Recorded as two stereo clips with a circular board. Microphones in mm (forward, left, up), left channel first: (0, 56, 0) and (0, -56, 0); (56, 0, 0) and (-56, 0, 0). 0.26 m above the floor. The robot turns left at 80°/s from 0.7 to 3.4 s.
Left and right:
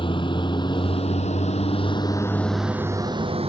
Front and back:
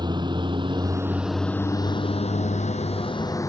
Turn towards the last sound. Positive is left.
turn(degrees=-60)